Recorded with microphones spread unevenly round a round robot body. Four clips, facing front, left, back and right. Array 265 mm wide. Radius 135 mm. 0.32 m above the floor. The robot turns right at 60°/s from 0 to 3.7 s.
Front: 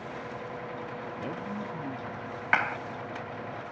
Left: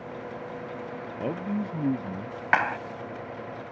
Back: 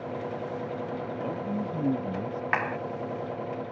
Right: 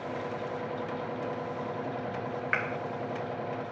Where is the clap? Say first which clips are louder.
Left 10 dB, front 2 dB; 75° left; by 2.8 s 90° left.